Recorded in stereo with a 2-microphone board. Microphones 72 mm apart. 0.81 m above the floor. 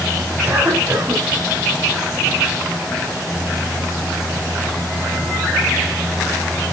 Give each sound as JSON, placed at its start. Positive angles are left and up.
{"t": 0.4, "sound": "a cough", "side_deg": -25, "distance_m": 6.5}